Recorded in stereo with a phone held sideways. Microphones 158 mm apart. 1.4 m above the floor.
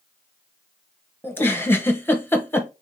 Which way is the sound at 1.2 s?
15° left (ahead or behind).